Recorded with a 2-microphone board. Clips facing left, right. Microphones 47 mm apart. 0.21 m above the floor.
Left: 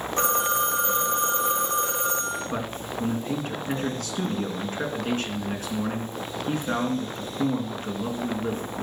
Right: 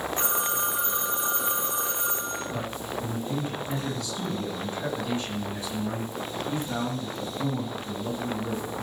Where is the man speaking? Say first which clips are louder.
Left 1 dB; 60° left (ahead or behind), 3 m.